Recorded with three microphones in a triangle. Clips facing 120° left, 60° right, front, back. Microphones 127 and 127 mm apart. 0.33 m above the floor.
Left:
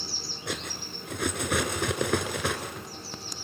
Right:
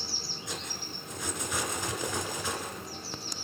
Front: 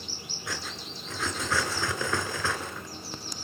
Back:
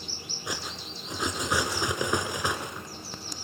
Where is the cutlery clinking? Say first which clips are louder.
Left 6 dB, back 1 dB; 110° left, 2.5 m.